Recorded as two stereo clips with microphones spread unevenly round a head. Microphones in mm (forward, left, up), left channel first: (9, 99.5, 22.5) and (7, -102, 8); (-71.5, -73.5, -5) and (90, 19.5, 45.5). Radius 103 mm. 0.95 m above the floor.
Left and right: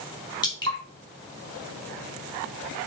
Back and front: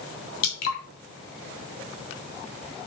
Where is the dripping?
160° left, 3 m.